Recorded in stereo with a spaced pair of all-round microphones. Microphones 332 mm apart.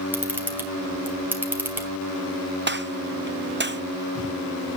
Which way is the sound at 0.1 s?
5° right (ahead or behind).